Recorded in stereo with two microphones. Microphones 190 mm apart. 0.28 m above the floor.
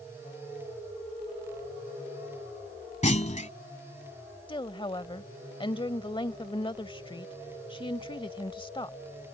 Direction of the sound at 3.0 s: 40° left (ahead or behind).